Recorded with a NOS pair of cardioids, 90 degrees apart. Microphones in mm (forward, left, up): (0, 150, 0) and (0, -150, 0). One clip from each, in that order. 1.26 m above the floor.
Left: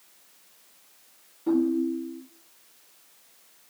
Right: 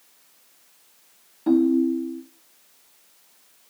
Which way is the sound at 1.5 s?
60° right.